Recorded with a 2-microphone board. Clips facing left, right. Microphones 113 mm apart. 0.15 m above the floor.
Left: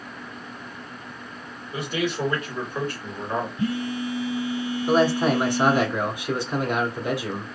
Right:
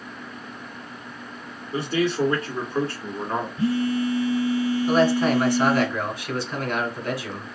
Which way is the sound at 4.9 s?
20° left (ahead or behind).